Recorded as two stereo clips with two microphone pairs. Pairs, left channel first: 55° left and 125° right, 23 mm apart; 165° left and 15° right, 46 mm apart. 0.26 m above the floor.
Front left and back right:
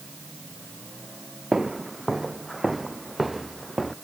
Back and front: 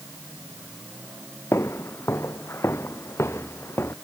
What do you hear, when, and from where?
1.5 s footsteps: 165° left; by 3.9 s 145° left